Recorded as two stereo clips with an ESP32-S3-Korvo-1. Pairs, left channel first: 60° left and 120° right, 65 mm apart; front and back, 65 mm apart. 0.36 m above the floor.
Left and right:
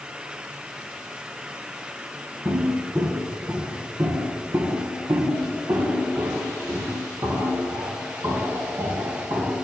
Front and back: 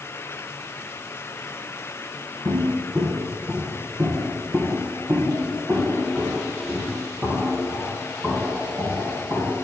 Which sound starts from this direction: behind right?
Footsteps, at 2.5 s.